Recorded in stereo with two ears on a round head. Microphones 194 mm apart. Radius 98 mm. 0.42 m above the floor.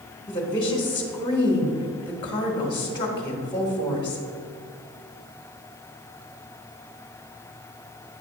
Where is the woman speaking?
20° left (ahead or behind), 1.1 m.